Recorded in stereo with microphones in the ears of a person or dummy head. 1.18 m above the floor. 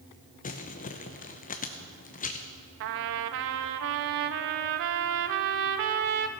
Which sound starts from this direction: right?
A trumpet, at 2.8 s.